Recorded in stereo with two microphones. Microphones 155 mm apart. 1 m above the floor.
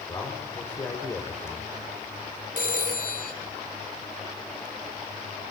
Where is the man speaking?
25° left (ahead or behind), 4 m.